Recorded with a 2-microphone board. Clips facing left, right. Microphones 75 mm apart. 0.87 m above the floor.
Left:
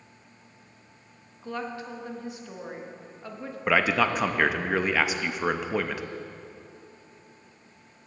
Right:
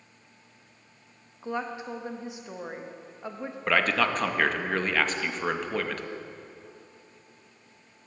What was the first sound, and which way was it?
A woman speaking, 20° right (ahead or behind).